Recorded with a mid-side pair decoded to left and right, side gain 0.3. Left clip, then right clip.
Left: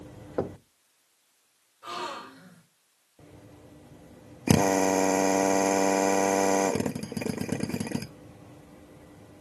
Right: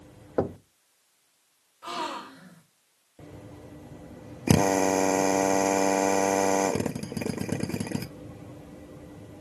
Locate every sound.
0.4 s knocking: 40° right, 0.5 m
1.8 s a gasp: 65° right, 2.5 m
4.5 s a drill: 5° right, 0.8 m